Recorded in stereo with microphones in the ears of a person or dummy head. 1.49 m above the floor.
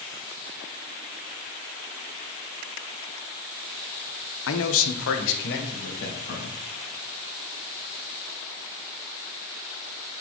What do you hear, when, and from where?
4.5 s a man speaking: 70° left (ahead or behind), 1.0 m; by 6.5 s 55° left (ahead or behind), 3.5 m